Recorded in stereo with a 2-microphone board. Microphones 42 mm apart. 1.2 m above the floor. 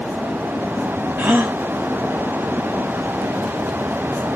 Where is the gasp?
55° right (ahead or behind), 1.2 m.